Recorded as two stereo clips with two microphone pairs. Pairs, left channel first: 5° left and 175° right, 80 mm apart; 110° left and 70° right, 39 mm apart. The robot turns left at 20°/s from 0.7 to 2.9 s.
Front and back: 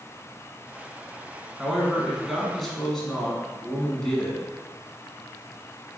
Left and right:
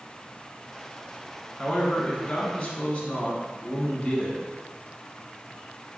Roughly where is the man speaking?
Behind left.